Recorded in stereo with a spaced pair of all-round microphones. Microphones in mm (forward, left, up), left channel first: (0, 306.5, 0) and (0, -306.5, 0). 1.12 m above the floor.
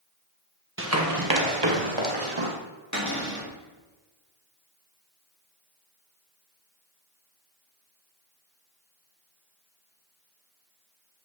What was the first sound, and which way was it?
Running footsteps, 20° right (ahead or behind).